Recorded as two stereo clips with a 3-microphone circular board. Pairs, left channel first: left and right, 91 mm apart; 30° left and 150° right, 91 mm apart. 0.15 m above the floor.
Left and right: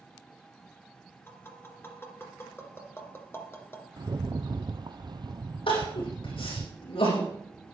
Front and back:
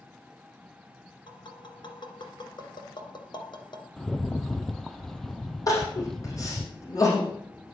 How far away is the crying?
About 7 m.